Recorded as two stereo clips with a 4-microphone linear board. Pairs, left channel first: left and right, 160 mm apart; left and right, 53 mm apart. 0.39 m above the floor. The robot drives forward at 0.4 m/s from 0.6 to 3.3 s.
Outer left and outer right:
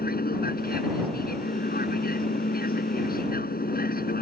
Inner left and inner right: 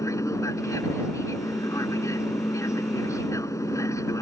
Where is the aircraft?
65° left (ahead or behind).